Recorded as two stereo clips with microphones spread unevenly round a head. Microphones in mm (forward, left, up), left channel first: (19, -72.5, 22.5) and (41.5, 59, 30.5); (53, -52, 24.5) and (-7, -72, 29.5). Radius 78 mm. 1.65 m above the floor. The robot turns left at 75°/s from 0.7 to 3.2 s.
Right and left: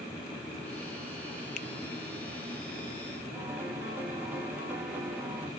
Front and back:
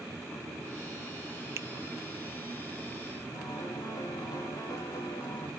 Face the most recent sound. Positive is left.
turn(degrees=5)